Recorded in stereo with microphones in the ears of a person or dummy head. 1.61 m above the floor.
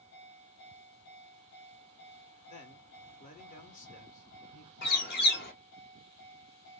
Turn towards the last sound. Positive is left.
turn(degrees=60)  # may be behind; listen again after turning